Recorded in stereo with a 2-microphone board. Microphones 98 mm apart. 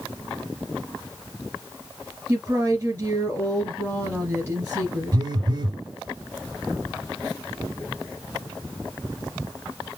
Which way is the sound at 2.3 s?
35° right (ahead or behind).